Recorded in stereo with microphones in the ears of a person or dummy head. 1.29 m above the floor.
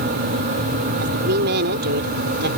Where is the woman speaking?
60° right (ahead or behind).